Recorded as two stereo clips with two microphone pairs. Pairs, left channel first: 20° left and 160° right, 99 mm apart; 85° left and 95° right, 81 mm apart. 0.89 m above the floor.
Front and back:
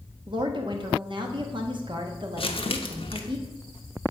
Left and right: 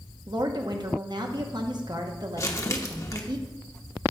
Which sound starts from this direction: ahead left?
Crumpling, at 2.4 s.